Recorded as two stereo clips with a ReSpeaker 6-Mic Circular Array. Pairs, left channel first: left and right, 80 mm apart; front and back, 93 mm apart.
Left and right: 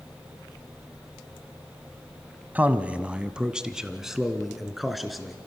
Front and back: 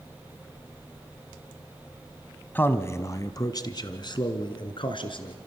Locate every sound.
2.5 s a man speaking: 45° right, 1.1 m; by 5.3 s straight ahead, 2.5 m